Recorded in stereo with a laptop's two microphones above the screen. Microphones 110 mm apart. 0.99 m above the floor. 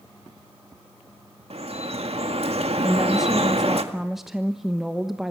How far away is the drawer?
I don't hear a drawer.